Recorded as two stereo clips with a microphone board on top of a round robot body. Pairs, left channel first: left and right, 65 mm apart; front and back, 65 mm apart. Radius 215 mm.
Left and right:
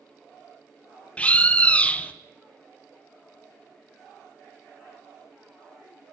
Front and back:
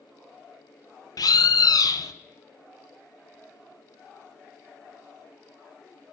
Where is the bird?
15° left, 0.6 m.